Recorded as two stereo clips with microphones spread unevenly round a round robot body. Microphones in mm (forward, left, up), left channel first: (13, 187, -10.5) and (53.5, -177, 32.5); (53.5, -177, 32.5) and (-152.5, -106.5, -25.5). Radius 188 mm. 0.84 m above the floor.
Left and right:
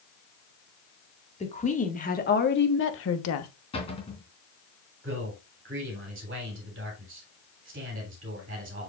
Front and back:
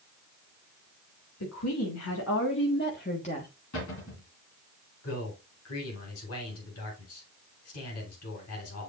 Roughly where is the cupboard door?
Ahead.